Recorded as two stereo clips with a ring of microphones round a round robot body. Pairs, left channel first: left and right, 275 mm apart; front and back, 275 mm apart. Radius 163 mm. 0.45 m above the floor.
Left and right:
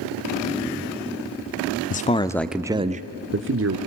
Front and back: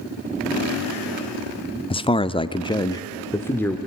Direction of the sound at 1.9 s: 60° left.